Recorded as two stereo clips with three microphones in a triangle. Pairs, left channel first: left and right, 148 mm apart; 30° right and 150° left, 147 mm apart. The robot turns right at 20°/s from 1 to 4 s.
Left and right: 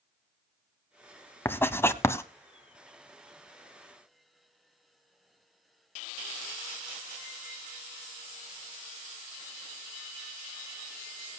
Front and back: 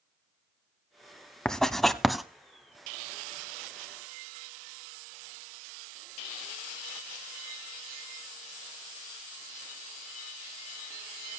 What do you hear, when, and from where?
1.4 s writing: 50° left, 0.9 m; by 2.2 s 65° left, 0.9 m